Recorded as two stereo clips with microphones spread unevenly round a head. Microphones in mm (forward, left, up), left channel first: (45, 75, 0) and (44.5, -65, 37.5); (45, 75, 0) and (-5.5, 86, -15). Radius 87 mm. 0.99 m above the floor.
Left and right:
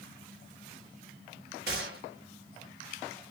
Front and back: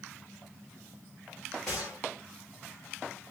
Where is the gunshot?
100° right, 1.7 m.